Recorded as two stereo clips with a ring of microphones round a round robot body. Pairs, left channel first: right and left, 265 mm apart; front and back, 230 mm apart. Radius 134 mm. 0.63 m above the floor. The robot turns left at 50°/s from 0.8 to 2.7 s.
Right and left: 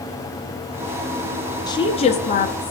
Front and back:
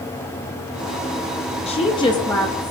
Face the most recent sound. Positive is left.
turn(degrees=-85)